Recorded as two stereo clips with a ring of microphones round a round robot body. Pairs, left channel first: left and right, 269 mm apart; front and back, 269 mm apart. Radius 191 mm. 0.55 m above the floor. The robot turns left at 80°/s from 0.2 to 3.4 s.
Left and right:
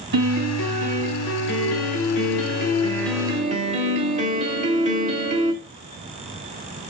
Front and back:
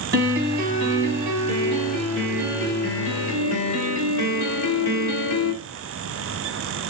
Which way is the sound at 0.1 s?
130° right.